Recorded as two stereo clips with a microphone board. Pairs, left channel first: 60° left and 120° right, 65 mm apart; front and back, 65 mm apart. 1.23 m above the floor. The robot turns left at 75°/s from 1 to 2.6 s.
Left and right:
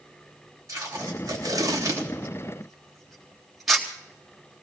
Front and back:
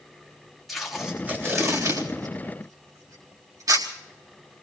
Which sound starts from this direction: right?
Tape being pulled, at 0.7 s.